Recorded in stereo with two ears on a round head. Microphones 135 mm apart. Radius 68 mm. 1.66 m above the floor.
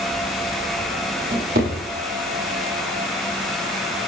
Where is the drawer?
60° right (ahead or behind), 7.5 m.